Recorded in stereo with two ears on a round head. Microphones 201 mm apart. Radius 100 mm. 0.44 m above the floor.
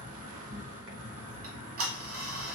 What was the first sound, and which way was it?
An insect, 70° right (ahead or behind).